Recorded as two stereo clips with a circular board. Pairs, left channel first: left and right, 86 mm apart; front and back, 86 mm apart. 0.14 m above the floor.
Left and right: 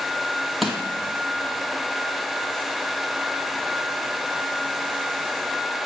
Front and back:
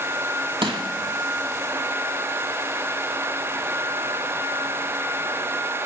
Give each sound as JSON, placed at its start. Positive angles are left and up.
{"t": 0.6, "sound": "crushing", "azimuth_deg": 180, "distance_m": 0.7}